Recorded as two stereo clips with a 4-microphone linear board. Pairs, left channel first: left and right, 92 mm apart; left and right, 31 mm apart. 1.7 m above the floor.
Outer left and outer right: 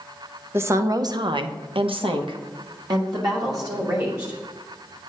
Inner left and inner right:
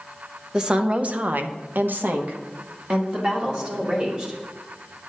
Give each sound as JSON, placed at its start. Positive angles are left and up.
{"t": 0.5, "sound": "a woman speaking", "side_deg": -25, "distance_m": 0.8}